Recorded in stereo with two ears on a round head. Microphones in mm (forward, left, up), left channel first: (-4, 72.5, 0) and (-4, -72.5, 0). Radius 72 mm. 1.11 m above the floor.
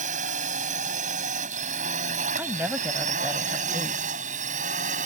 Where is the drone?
50° right (ahead or behind).